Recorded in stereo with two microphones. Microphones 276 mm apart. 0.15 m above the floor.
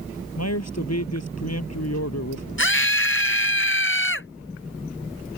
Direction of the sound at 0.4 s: 65° left (ahead or behind).